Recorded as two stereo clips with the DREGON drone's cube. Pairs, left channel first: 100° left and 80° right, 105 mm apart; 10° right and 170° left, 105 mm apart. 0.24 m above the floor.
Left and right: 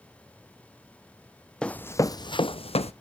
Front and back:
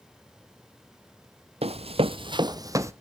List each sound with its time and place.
1.6 s running footsteps: straight behind, 0.6 m; by 2.9 s 110° left, 0.8 m